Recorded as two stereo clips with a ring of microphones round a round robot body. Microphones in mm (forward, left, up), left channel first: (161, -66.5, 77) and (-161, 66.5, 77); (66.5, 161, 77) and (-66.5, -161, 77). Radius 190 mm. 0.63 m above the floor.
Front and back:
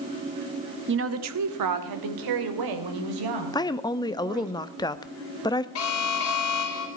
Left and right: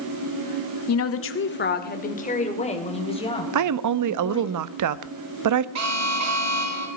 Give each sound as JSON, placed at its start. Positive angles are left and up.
{"t": 0.9, "sound": "a woman speaking", "azimuth_deg": 105, "distance_m": 1.2}
{"t": 3.5, "sound": "a woman speaking", "azimuth_deg": -100, "distance_m": 0.7}
{"t": 5.8, "sound": "an alarm", "azimuth_deg": -70, "distance_m": 3.5}